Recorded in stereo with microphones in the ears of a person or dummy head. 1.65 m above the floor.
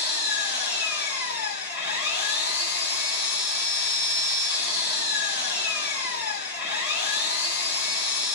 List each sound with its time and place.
0.0 s an engine running: 45° left (ahead or behind), 1.9 m